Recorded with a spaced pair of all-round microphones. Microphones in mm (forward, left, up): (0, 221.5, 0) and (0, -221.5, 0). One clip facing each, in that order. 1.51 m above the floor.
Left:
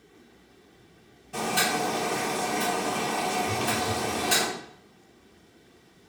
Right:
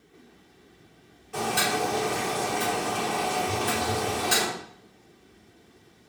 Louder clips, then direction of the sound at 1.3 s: Right 1 dB; 50° left (ahead or behind).